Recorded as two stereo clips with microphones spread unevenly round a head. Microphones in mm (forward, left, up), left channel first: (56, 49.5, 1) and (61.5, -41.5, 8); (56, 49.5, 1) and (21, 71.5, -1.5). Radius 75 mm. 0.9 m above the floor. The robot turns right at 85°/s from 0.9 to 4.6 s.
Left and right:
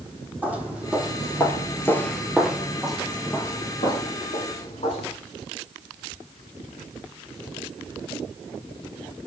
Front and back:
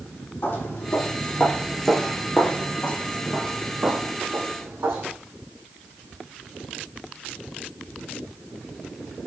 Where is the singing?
I don't hear singing.